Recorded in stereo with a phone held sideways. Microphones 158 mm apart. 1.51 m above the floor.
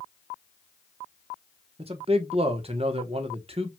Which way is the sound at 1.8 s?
40° right (ahead or behind).